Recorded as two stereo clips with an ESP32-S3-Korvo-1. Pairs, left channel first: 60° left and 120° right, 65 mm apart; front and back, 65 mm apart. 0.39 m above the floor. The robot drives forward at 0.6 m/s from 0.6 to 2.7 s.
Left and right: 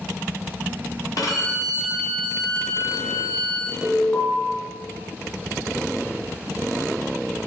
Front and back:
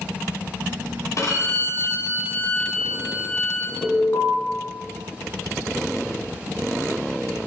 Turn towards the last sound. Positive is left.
turn(degrees=15)